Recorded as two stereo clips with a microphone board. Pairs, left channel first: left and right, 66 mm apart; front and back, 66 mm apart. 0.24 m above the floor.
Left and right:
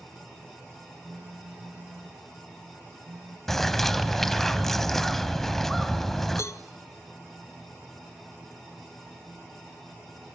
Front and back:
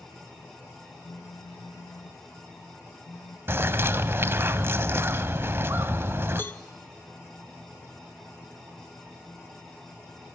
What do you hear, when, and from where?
1.0 s a phone buzzing: 20° right, 2.5 m
3.5 s a bird: 170° left, 0.6 m
6.4 s a cowbell: 55° left, 0.6 m